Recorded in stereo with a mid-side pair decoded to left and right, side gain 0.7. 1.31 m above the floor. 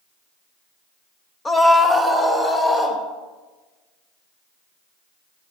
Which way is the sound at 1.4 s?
15° left.